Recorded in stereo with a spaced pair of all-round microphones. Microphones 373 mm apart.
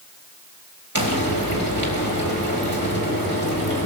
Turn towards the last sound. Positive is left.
turn(degrees=-65)  # may be behind; listen again after turning